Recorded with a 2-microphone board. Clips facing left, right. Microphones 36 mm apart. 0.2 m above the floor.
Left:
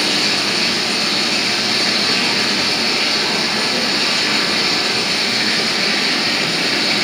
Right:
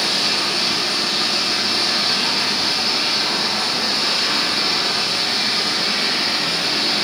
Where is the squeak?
I don't hear a squeak.